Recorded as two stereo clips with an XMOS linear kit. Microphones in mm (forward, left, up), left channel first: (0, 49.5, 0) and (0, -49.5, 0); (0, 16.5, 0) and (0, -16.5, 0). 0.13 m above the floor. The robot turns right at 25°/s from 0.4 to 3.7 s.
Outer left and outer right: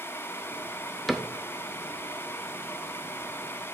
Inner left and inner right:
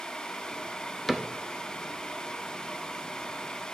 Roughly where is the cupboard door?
Centre.